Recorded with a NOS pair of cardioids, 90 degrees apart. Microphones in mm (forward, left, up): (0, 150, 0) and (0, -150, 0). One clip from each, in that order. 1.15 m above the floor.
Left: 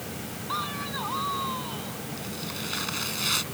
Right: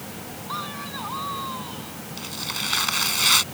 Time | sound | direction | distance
0.5 | a man speaking | 5° left | ?
2.2 | tearing paper | 60° right | ?